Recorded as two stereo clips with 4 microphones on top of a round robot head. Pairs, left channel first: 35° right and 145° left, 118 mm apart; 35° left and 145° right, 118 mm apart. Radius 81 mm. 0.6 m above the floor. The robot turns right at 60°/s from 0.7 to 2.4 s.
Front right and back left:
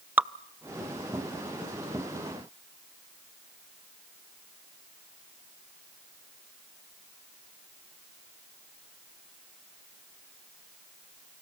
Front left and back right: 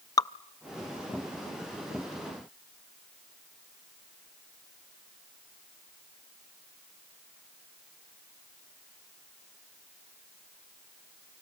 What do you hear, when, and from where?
0.2 s dripping: 75° left, 0.6 m